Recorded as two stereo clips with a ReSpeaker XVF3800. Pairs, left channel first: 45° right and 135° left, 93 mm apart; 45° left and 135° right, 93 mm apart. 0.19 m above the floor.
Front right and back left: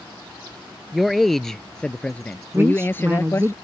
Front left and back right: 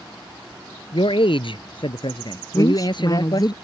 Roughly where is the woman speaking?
Left.